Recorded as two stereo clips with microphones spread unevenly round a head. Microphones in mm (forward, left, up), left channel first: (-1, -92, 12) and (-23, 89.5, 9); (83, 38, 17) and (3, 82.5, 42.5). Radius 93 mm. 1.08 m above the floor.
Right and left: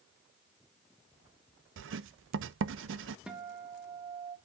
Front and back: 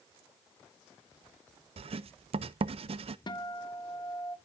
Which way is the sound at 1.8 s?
125° left.